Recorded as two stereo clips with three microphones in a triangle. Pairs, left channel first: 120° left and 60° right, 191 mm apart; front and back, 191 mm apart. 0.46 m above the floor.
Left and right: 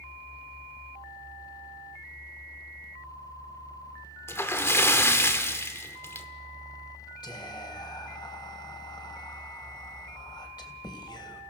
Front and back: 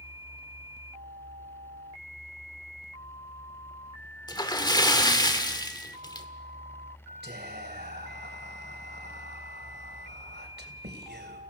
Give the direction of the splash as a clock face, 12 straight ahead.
10 o'clock.